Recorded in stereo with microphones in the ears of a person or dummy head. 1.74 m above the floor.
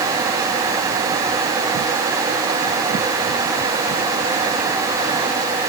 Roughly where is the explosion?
No explosion in this recording.